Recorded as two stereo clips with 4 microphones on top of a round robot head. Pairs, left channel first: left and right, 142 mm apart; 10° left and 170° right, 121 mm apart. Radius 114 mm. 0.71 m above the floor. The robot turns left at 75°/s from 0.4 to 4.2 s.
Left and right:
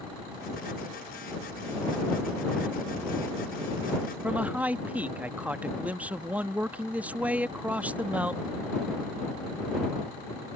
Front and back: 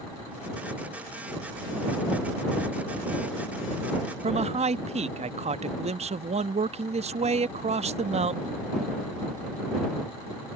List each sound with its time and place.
4.2 s a man speaking: 170° right